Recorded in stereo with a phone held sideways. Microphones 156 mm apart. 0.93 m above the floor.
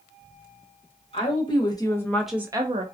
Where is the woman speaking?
35° left (ahead or behind), 1.2 m; by 2.8 s 45° right (ahead or behind), 0.5 m.